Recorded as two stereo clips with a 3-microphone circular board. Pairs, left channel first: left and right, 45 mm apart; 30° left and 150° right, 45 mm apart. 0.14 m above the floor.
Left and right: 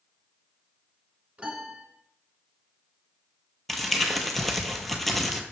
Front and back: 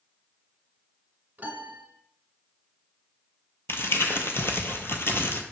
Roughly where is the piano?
Behind right.